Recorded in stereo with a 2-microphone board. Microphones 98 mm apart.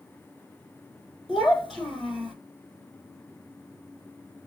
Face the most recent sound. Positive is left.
turn(degrees=0)  # may be behind; listen again after turning